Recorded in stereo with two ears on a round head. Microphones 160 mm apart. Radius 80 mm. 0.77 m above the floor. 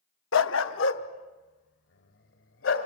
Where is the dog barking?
80° left, 0.7 m.